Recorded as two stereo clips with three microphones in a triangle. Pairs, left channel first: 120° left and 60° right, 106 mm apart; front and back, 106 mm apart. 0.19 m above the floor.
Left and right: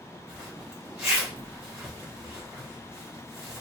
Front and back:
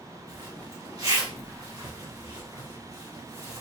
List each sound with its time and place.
0.3 s a zipper: 140° right, 3 m